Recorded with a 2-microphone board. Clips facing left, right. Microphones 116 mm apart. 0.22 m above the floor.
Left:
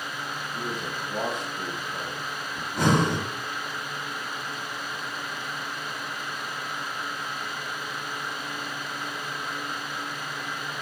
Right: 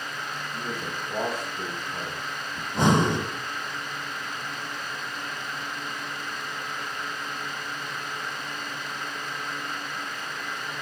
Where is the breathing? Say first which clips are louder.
Right 1 dB; 20° right (ahead or behind), 0.9 m.